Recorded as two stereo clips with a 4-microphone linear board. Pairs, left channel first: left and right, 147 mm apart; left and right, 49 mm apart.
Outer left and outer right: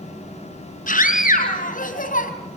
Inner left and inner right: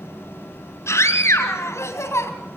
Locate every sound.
0.9 s a scream: 70° left (ahead or behind), 3.5 m